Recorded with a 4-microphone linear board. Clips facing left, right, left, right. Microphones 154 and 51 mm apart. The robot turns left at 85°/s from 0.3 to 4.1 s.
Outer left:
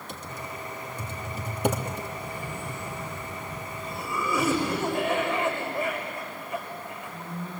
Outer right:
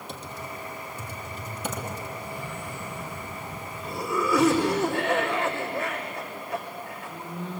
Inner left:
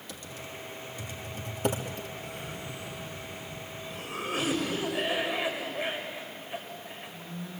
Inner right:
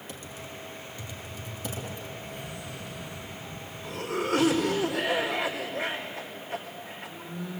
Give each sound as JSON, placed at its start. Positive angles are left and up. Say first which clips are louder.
{"t": 0.1, "sound": "typing on a keyboard", "louder": "even, inner left 1 dB", "side_deg": -35, "distance_m": 3.0}
{"t": 2.2, "sound": "a cough", "louder": "even, even", "azimuth_deg": 70, "distance_m": 4.5}